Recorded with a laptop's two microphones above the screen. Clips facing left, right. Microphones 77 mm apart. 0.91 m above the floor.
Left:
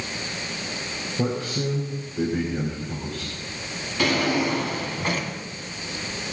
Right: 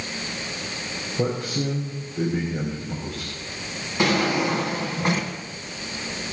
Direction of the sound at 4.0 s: 20° right (ahead or behind).